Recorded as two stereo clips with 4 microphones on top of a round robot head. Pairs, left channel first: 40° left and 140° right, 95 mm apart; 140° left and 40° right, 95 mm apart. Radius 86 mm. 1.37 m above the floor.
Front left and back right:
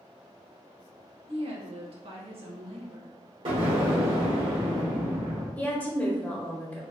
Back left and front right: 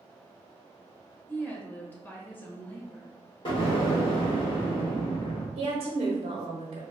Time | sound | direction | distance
1.3 | a woman speaking | 150° right | 1.0 m
3.5 | an explosion | 175° right | 1.3 m
5.6 | a woman speaking | 35° right | 1.0 m